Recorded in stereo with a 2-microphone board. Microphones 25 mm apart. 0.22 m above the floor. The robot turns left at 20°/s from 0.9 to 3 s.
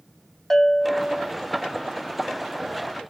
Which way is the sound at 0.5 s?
20° left (ahead or behind).